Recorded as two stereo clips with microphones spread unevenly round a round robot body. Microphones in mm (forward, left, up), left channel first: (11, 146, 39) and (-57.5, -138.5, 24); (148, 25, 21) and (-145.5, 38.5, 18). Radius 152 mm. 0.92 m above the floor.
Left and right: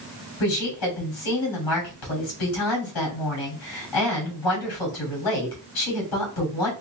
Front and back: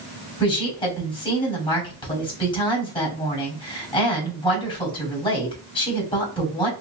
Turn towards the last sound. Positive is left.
turn(degrees=70)